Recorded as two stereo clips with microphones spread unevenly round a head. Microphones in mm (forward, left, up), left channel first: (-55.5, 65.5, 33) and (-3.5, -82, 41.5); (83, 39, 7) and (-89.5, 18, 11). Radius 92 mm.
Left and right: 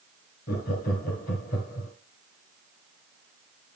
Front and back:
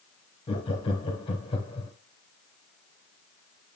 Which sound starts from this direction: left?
Laughter, at 0.5 s.